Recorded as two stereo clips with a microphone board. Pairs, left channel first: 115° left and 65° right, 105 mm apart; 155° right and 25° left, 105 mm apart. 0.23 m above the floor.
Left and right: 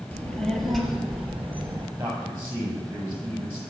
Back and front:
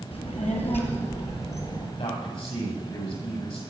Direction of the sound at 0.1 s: 170° right.